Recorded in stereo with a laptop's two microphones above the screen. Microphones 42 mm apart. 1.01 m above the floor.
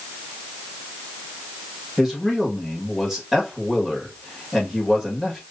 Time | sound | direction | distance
2.0 | a man speaking | 5° right (ahead or behind) | 1.7 m